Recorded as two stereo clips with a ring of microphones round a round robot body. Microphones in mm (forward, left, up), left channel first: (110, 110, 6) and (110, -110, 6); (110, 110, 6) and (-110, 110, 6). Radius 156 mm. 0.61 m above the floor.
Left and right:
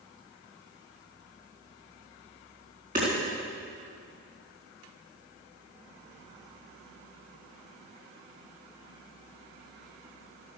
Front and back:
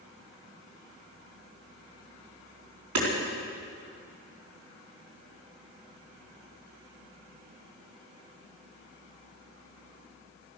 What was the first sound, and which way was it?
Hammering, 155° right.